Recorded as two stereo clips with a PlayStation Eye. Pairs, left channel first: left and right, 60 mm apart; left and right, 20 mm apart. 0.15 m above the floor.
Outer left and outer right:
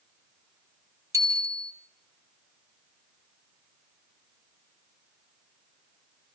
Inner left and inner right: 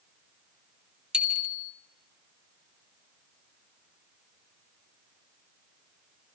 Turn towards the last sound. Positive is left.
turn(degrees=-65)  # may be behind; listen again after turning